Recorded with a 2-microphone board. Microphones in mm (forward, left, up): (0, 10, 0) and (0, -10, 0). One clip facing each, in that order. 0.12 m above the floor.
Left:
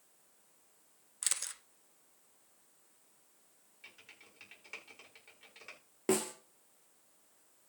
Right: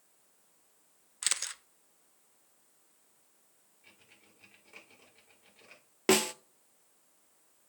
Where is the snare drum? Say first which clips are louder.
Right 6 dB; 60° right (ahead or behind), 0.7 m.